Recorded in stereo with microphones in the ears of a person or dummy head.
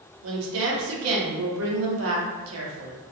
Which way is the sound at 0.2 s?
75° right (ahead or behind).